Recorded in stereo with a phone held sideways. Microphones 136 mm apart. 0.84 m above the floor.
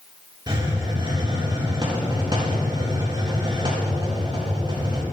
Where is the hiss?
35° right (ahead or behind), 5.5 m.